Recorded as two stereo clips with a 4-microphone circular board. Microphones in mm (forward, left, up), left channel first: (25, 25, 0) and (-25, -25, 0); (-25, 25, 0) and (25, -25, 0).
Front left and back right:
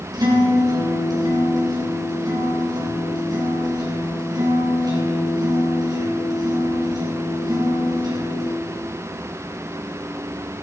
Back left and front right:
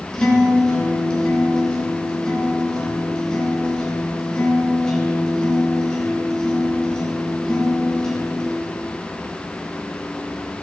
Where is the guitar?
145° right, 5.5 m.